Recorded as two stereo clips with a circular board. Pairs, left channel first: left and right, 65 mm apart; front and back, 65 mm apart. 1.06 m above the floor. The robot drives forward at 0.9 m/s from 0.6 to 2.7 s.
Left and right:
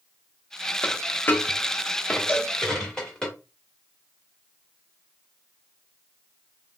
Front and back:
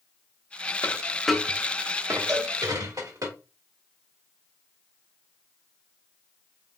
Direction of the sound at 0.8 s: 30° left.